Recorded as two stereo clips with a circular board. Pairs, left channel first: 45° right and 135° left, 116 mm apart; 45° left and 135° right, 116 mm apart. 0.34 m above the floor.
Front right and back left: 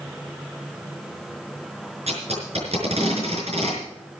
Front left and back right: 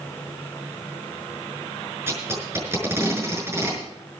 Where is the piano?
I don't hear a piano.